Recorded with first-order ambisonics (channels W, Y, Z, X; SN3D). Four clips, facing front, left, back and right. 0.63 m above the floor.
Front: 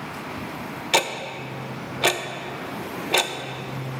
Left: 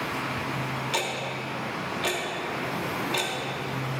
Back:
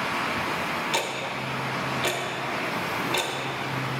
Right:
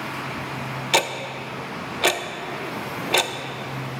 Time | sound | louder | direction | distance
0.9 | ticking | right 10 dB, front 4 dB | 50° right | 0.5 m